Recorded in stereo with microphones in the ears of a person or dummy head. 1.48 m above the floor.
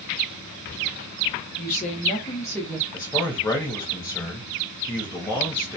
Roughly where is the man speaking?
Centre.